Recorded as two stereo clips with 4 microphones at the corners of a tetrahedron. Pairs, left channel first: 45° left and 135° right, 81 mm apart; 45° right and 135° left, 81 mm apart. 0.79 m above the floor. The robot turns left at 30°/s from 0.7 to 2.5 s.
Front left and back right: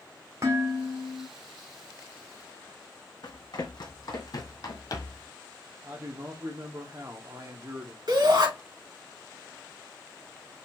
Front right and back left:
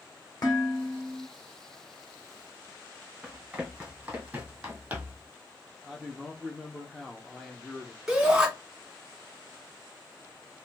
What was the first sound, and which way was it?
Dishes clattering, 80° right.